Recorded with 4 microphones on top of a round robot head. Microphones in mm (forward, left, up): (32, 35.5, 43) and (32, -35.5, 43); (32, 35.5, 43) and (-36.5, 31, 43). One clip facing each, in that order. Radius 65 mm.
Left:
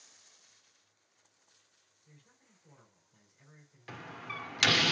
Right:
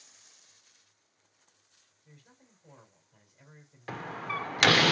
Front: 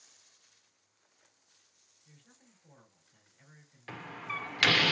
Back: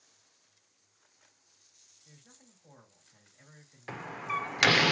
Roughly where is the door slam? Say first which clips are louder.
Right 8 dB, back 5 dB; right.